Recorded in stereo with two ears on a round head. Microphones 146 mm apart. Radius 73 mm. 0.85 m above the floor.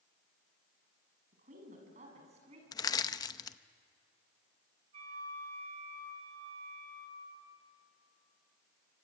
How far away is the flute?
About 5.5 m.